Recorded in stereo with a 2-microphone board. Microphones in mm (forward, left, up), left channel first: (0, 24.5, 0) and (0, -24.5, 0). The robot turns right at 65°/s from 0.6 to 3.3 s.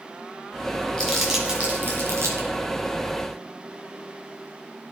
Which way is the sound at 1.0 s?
15° left (ahead or behind).